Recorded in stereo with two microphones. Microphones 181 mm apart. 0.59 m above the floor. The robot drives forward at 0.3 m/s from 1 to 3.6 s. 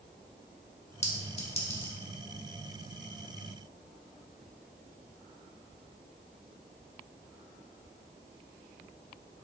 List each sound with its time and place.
1.0 s a clink: 35° left (ahead or behind), 1.3 m; by 2.0 s 30° left (ahead or behind), 1.5 m